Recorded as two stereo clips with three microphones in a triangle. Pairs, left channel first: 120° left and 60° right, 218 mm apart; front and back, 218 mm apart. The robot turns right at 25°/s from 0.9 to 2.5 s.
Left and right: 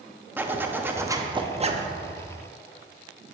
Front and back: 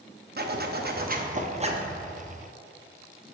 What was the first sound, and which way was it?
A zipper, 140° right.